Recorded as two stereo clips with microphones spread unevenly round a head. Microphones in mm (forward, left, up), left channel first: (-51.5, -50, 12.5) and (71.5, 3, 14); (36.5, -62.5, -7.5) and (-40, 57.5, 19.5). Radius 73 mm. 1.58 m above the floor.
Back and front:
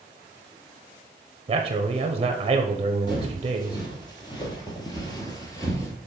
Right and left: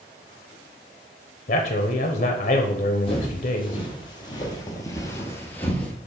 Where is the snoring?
I don't hear snoring.